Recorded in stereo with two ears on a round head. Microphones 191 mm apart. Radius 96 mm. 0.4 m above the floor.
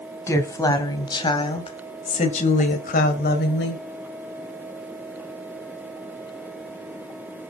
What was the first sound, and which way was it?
A woman speaking, 15° left (ahead or behind).